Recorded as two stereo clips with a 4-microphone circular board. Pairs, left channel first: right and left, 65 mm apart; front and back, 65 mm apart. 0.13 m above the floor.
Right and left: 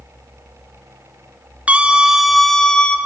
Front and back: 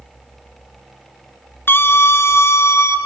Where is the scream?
30° left, 1.5 m; by 3.0 s 20° right, 1.7 m.